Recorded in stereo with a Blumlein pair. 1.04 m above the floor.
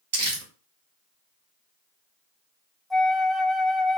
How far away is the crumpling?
About 1.3 m.